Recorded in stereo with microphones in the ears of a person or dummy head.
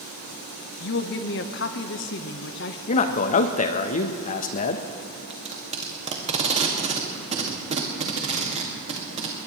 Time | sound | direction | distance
0.8 | a woman speaking | 50° left (ahead or behind) | 0.9 m
2.9 | a man speaking | 40° left (ahead or behind) | 0.9 m
5.3 | tape being pulled | 40° right (ahead or behind) | 1.9 m